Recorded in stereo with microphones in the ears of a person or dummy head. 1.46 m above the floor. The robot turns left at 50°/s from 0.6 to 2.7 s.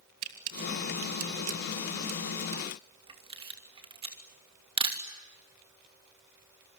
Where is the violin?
No violin in this recording.